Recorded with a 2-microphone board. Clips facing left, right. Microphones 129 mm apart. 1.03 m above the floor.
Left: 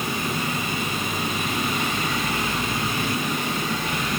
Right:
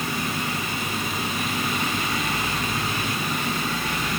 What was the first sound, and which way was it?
Only background noise.